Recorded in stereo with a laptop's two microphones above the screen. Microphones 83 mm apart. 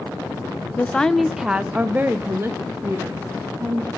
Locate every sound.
0.8 s a woman speaking: 20° left (ahead or behind), 0.5 m; by 3.9 s 40° right (ahead or behind), 1.7 m